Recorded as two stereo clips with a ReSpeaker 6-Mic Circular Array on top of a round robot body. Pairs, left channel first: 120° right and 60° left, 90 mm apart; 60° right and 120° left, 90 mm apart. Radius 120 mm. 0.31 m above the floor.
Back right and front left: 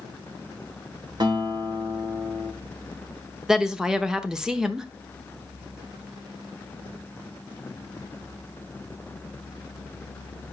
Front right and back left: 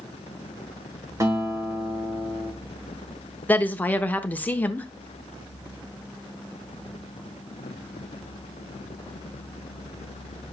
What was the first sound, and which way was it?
A guitar, 75° left.